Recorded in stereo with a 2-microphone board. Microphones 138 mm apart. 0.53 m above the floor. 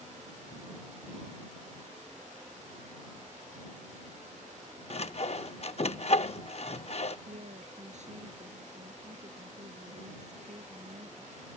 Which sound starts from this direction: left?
Sawing, at 4.9 s.